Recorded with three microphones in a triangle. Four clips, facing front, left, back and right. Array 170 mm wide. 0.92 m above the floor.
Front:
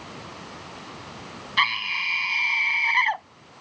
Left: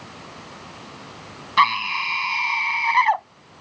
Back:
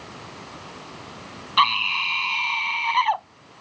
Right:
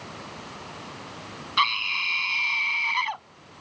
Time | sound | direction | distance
1.6 | a scream | 110° left | ?